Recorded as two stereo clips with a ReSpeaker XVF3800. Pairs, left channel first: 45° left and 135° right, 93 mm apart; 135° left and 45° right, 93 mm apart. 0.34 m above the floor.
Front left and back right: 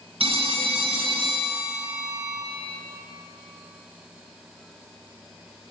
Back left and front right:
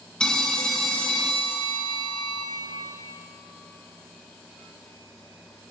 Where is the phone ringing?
145° right, 2.5 m.